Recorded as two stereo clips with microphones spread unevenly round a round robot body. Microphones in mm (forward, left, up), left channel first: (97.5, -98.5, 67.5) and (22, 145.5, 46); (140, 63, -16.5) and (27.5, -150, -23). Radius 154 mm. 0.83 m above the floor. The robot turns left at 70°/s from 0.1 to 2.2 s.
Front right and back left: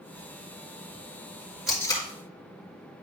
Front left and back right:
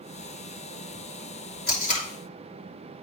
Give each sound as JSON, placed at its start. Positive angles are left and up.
{"t": 1.7, "sound": "tape being pulled", "azimuth_deg": 20, "distance_m": 3.5}